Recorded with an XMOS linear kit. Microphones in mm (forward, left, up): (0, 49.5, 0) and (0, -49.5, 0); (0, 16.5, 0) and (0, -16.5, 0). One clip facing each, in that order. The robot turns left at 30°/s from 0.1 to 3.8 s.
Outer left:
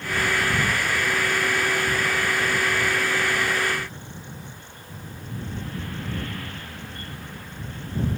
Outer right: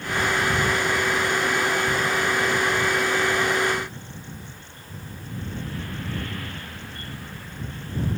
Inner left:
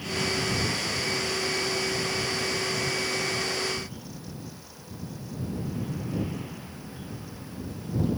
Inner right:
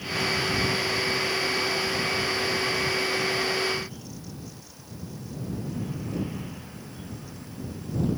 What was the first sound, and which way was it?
Only background noise.